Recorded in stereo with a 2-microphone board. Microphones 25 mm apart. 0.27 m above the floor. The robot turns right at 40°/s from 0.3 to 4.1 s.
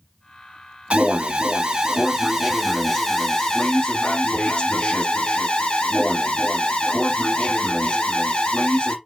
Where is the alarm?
80° right, 1.3 m; by 8.9 s 50° left, 1.3 m.